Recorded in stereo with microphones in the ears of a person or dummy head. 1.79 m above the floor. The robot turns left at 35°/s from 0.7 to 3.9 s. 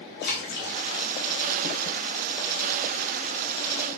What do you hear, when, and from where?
0.2 s a splash: 55° left (ahead or behind), 1.1 m; by 0.8 s 60° left (ahead or behind), 1.1 m